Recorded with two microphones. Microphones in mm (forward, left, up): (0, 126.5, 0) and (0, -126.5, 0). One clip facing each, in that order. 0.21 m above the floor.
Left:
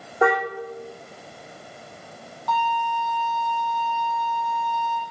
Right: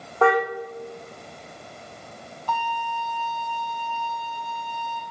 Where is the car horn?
15° left (ahead or behind), 6 m.